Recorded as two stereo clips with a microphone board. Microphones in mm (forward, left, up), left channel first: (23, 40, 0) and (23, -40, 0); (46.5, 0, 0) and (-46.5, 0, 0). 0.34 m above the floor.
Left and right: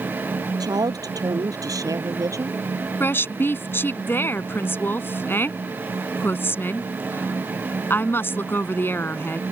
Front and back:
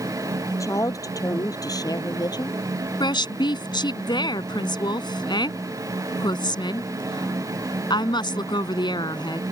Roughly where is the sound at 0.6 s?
Ahead right.